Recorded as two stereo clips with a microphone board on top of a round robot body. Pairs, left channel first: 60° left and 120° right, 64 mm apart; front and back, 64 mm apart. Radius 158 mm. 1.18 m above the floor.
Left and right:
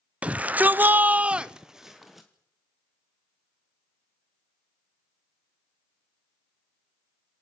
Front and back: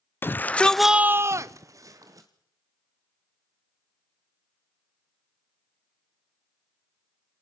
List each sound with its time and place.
0.2 s a shout: 55° right, 1.0 m; by 2.3 s 150° left, 1.5 m